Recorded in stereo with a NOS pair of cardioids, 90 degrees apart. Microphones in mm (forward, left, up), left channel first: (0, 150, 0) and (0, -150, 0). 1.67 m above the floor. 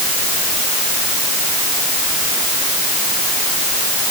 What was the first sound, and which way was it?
Only background noise.